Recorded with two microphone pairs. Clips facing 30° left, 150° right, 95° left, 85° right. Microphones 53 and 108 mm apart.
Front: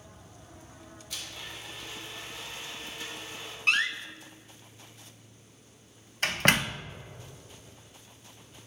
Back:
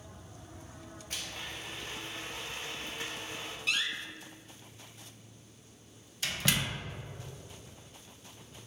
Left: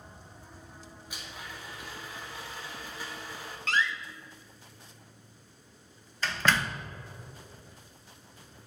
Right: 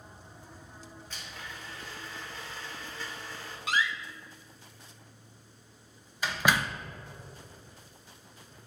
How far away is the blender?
About 1.7 m.